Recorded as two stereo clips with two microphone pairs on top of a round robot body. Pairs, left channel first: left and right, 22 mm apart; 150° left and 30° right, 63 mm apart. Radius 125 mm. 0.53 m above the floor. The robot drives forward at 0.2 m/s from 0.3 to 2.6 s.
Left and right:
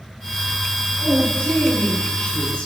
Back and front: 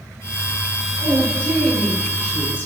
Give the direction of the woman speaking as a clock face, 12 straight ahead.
9 o'clock.